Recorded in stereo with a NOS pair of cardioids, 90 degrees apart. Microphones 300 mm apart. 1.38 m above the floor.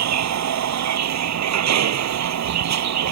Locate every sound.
0.0 s a vehicle: 65° right